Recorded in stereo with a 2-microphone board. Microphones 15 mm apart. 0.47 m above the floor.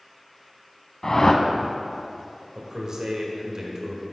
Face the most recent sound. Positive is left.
turn(degrees=-45)  # may be behind; listen again after turning